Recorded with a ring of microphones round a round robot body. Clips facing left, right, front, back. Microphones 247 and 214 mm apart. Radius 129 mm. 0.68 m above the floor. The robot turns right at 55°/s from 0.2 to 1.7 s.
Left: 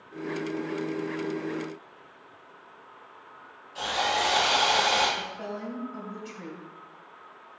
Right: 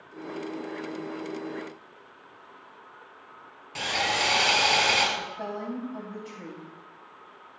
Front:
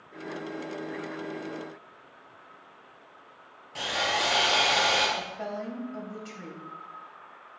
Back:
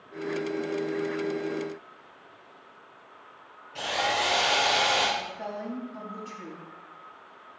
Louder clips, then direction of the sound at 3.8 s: Left 1 dB, back 2 dB; 70° right.